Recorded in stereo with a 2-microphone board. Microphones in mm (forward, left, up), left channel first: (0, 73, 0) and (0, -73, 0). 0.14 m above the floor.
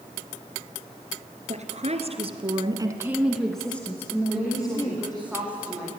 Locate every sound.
1.5 s a woman speaking: 50° right (ahead or behind), 2.5 m; by 5.3 s 30° left (ahead or behind), 3.5 m
4.3 s a woman speaking: 10° right (ahead or behind), 9 m